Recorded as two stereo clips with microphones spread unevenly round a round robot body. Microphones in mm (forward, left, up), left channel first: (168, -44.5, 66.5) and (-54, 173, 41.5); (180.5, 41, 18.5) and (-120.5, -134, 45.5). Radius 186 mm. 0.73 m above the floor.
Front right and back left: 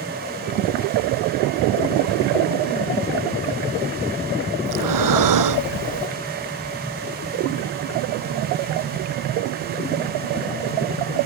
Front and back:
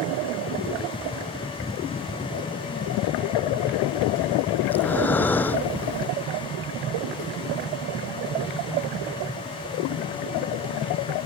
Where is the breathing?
115° left.